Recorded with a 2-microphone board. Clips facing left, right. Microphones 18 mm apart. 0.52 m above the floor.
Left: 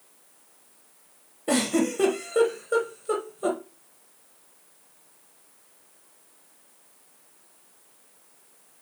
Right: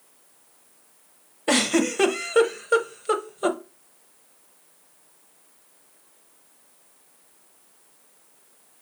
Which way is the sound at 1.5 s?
45° right (ahead or behind).